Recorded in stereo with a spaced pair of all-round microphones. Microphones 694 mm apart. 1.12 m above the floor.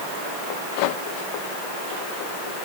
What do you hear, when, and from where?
Only background noise.